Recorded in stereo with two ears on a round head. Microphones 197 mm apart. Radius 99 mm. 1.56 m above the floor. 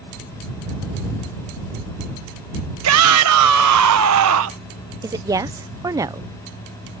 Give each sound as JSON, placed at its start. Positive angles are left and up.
{"t": 2.8, "sound": "a shout", "side_deg": -70}
{"t": 5.0, "sound": "a woman speaking", "side_deg": -15}